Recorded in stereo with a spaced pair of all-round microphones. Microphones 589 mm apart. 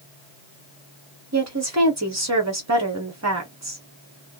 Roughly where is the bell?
No bell in this recording.